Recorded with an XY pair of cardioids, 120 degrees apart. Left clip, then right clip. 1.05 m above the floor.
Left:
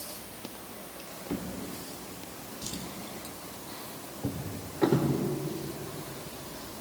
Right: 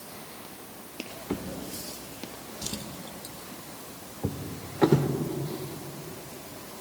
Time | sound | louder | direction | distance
1.3 | a drawer | right 1 dB | 30° right | 1.5 m